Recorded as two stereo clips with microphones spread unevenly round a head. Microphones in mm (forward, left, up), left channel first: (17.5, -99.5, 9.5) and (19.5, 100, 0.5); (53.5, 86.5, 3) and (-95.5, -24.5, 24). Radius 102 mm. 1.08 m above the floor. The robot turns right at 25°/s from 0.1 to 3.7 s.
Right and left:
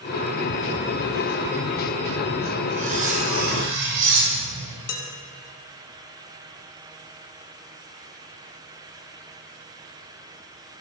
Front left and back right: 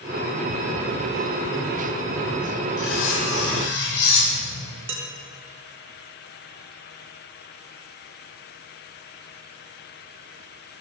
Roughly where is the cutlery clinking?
Ahead left.